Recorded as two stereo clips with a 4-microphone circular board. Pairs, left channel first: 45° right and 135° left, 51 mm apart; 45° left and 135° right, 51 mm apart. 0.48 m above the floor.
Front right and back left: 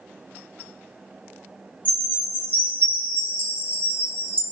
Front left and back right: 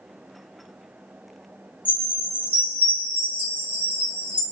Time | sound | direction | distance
1.9 | a chime | 90° left | 1.9 m